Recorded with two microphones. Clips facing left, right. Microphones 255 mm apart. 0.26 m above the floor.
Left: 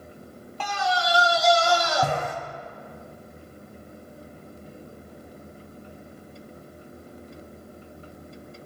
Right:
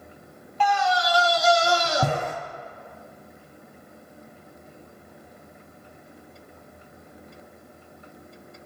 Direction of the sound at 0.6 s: 50° left (ahead or behind).